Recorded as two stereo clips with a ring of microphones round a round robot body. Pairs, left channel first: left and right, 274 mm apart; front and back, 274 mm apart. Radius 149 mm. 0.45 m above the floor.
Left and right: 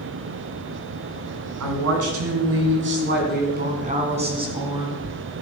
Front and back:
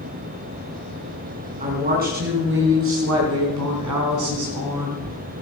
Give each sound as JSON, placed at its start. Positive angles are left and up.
{"t": 1.6, "sound": "a woman speaking", "azimuth_deg": -115, "distance_m": 4.0}